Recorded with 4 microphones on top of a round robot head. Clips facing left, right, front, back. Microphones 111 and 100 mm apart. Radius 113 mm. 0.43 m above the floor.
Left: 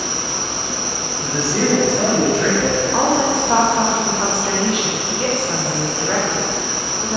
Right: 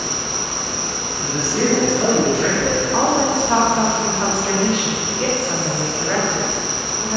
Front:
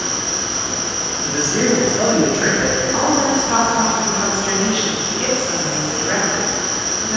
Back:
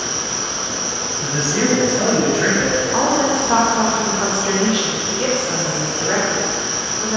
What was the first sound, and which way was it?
An insect, 45° left.